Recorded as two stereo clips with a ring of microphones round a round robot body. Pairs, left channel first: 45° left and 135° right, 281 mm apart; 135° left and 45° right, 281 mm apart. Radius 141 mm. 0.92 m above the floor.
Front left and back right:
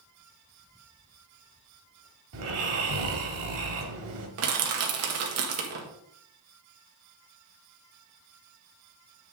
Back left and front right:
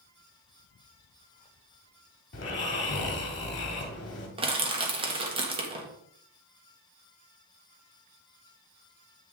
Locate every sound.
2.3 s snoring: 175° right, 1.6 m
4.4 s crushing: 115° right, 1.5 m